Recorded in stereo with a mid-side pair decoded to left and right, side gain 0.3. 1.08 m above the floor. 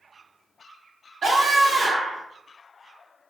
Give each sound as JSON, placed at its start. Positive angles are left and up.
{"t": 1.2, "sound": "a scream", "azimuth_deg": -65, "distance_m": 1.8}